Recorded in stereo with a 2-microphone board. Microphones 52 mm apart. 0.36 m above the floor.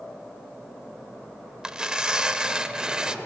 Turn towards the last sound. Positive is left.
turn(degrees=-15)  # may be behind; listen again after turning